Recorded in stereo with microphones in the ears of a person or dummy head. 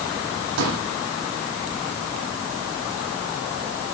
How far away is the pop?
About 9 m.